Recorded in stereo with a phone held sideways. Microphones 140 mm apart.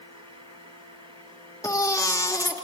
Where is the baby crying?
20° left (ahead or behind), 1.1 m.